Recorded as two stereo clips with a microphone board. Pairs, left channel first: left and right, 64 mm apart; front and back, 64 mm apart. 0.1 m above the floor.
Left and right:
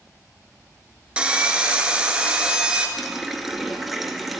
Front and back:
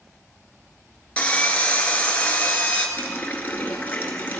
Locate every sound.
1.2 s sawing: 40° right, 0.8 m
3.0 s a running tap: 5° right, 0.9 m